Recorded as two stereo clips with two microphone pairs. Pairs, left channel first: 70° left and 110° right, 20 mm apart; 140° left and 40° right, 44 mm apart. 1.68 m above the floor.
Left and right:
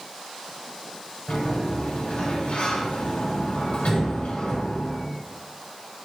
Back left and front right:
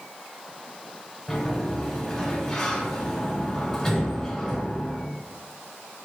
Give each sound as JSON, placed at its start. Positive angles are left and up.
{"t": 1.3, "sound": "a sliding door", "azimuth_deg": 60, "distance_m": 1.2}